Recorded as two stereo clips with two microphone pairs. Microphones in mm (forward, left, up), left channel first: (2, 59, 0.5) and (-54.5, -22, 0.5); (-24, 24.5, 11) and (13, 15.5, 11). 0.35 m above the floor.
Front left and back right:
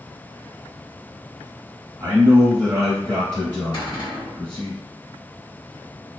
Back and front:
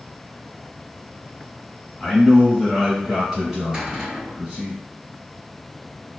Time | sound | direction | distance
2.0 | a man speaking | 135° right | 1.4 m
3.7 | a cupboard door | 50° left | 1.4 m